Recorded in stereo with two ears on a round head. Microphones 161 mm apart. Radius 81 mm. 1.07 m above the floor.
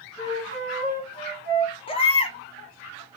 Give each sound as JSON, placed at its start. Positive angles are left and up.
{"t": 0.2, "sound": "a flute", "side_deg": 60, "distance_m": 1.9}
{"t": 1.9, "sound": "a baby crying", "side_deg": 30, "distance_m": 0.6}